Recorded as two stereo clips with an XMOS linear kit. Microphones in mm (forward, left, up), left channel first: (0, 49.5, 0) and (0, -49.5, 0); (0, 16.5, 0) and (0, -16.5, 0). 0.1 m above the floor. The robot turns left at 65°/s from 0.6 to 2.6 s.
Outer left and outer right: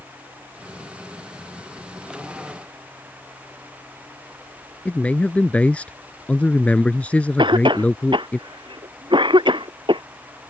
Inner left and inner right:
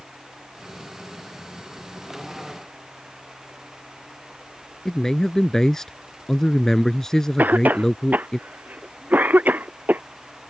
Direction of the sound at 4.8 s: 15° left (ahead or behind).